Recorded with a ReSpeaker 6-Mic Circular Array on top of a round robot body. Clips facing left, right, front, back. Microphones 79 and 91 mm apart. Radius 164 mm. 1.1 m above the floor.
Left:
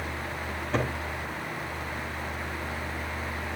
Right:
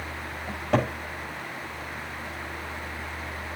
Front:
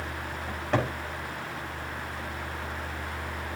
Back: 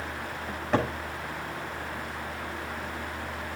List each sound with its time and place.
0.5 s a cupboard door: 95° right, 7 m